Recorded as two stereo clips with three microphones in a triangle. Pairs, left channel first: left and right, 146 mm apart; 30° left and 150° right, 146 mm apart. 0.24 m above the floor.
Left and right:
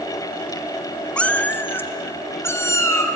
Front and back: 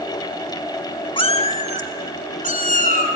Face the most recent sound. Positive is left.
turn(degrees=20)